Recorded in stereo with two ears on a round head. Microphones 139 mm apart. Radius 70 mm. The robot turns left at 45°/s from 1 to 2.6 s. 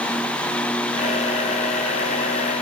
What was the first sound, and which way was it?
Only background noise.